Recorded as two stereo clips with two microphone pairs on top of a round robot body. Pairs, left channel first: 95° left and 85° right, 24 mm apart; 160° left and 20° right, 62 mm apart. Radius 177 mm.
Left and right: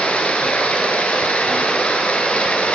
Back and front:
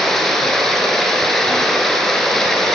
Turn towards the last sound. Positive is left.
turn(degrees=75)